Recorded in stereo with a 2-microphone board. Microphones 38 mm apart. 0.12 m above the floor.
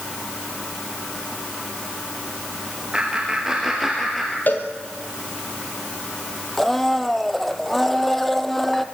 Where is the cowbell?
55° left (ahead or behind), 3 m.